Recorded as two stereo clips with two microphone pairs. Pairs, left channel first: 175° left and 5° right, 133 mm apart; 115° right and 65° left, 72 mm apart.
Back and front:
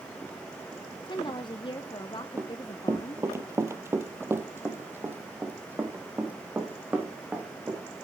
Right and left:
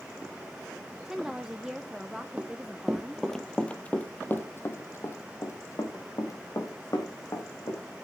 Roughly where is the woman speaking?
Behind left.